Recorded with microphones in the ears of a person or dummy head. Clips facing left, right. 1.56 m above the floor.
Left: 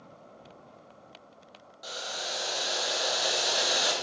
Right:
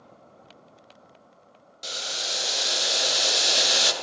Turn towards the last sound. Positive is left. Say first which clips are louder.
# right 1 dB
turn(degrees=-35)  # may be behind; listen again after turning